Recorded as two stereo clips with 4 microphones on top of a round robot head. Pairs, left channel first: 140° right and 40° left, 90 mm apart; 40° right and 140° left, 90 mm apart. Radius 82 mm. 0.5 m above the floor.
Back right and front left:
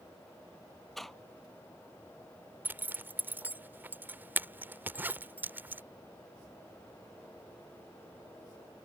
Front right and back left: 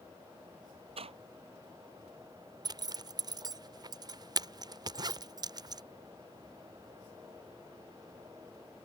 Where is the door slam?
130° left.